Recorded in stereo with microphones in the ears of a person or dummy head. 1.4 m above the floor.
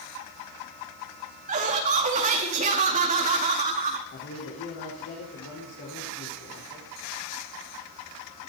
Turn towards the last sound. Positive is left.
turn(degrees=55)  # may be behind; listen again after turning